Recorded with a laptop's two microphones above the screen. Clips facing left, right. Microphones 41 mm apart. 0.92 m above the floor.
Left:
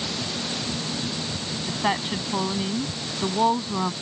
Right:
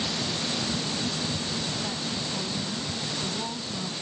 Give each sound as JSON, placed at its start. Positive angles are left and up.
{"t": 1.7, "sound": "a woman speaking", "side_deg": 55}